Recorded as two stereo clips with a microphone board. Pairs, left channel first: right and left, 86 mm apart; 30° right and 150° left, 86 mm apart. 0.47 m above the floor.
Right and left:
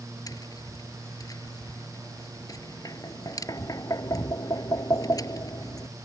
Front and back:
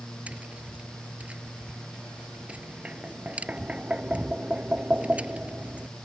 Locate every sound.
0.3 s tapping: 135° right